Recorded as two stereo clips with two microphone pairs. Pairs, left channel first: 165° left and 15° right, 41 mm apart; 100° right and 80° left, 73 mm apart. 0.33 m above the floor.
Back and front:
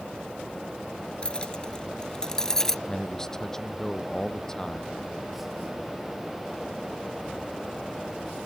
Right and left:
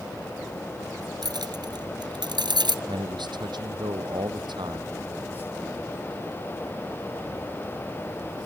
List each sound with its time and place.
1.2 s keys jangling: 100° left; by 2.8 s 85° left
2.9 s a man speaking: 85° left